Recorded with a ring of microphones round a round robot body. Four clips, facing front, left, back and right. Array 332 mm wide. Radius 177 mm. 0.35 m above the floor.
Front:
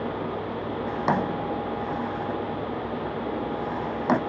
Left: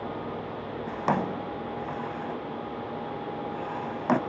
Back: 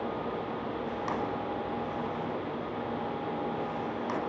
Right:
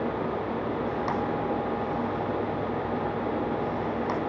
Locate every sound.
0.9 s a drawer: 35° left, 1.3 m